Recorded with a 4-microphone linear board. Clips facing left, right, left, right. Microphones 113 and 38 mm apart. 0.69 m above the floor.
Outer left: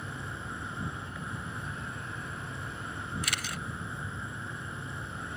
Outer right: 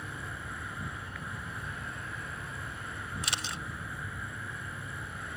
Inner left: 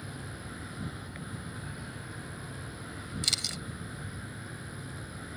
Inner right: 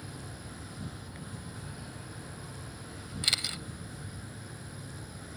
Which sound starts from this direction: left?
An insect, at 0.0 s.